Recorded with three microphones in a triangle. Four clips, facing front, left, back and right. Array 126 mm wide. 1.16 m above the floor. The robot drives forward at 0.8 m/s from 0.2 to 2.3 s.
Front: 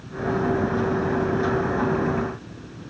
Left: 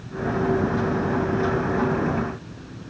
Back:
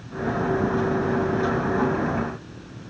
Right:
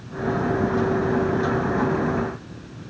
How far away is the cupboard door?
No cupboard door in this recording.